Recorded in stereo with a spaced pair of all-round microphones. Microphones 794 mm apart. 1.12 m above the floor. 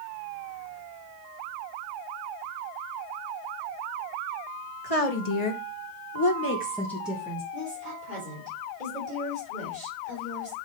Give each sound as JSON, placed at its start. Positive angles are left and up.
{"t": 4.8, "sound": "a woman speaking", "side_deg": 45, "distance_m": 1.6}
{"t": 7.5, "sound": "a woman speaking", "side_deg": 65, "distance_m": 3.5}